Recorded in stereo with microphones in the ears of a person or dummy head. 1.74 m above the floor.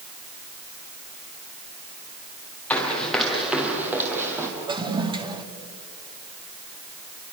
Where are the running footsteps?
5° left (ahead or behind), 4 m; by 4.5 s 20° right (ahead or behind), 4 m.